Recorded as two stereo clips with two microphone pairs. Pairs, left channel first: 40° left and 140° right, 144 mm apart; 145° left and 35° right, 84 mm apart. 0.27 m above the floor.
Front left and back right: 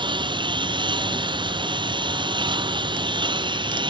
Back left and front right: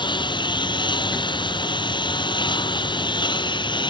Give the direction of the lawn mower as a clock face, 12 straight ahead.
7 o'clock.